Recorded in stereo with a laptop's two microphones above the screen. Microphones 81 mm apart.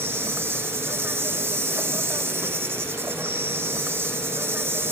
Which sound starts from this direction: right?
An insect, at 0.0 s.